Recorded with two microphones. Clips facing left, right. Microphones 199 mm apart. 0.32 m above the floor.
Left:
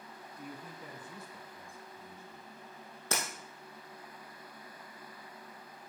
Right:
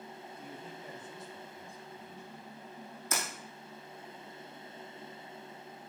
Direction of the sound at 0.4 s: 70° left (ahead or behind).